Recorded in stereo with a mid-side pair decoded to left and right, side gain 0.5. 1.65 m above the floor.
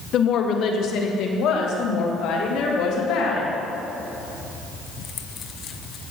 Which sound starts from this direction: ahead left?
A woman speaking, at 0.1 s.